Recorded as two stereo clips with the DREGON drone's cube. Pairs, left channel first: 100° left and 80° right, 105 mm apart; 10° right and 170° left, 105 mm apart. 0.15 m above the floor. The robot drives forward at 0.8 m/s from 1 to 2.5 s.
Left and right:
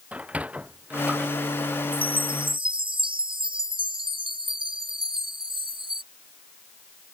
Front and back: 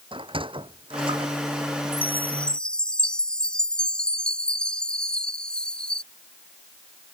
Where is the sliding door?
155° right; by 2.5 s 165° right.